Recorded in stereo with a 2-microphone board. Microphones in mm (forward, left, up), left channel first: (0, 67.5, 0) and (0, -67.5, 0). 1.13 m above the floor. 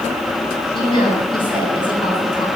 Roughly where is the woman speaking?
Left.